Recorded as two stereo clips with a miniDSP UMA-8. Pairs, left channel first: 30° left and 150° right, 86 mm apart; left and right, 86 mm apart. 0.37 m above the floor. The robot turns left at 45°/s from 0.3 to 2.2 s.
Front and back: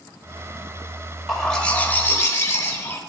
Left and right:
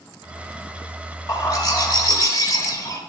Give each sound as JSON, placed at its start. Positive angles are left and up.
{"t": 1.3, "sound": "a bird", "azimuth_deg": 120, "distance_m": 1.2}